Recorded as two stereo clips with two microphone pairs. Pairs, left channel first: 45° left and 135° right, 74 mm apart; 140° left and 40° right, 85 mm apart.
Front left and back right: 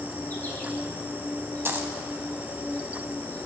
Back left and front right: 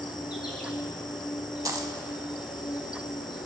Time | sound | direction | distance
0.0 | an insect | 105° left | 1.1 m
1.6 | a dropped coin | 75° right | 0.6 m